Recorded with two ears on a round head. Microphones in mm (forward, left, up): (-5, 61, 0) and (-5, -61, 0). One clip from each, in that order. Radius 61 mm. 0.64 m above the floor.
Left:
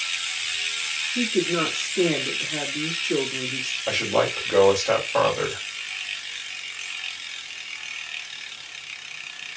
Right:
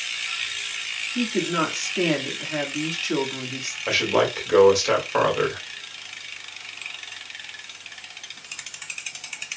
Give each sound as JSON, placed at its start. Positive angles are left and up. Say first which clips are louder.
{"t": 1.1, "sound": "a woman speaking", "louder": "even", "side_deg": -35, "distance_m": 1.5}
{"t": 3.9, "sound": "a man speaking", "louder": "right 2 dB", "side_deg": -35, "distance_m": 2.0}